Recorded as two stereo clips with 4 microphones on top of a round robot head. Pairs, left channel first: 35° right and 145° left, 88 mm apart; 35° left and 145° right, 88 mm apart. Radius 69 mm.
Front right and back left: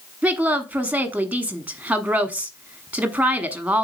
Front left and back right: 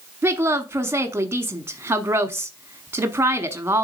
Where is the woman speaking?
160° right, 1.1 m.